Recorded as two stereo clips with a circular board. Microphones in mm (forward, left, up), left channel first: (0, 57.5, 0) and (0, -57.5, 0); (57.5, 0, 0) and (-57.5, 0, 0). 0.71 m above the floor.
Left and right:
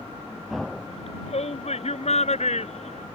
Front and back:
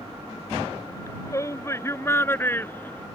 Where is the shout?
65° left; by 3.1 s 75° left.